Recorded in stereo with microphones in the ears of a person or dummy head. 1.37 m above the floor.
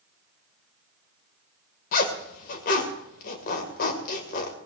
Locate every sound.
1.9 s a zipper: 50° left (ahead or behind), 2 m